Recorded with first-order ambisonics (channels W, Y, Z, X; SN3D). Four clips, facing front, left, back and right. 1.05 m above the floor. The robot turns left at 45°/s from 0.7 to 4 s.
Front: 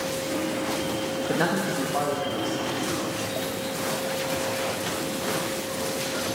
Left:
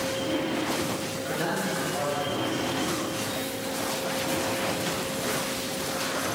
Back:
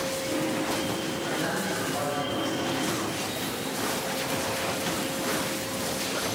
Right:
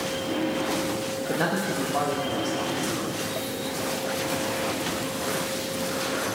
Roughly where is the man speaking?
Ahead right.